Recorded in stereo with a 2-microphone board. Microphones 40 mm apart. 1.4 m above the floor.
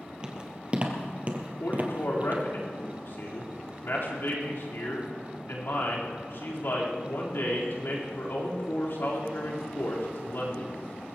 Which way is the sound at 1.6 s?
70° left (ahead or behind).